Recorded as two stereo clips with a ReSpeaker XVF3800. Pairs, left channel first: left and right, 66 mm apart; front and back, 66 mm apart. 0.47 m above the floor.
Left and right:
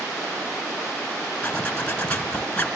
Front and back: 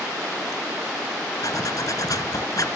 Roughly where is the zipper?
Ahead.